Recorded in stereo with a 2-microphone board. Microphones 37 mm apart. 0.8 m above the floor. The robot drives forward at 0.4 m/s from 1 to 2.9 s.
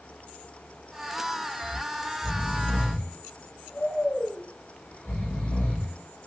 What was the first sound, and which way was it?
Snoring, 50° left (ahead or behind).